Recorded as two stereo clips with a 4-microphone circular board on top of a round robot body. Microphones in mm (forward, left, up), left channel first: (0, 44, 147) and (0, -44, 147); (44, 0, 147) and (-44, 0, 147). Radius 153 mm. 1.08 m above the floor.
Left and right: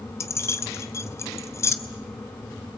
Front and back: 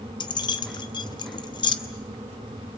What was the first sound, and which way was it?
Keys jangling, 30° left.